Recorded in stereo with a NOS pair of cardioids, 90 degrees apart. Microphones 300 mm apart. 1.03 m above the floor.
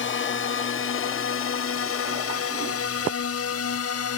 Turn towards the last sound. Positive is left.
turn(degrees=55)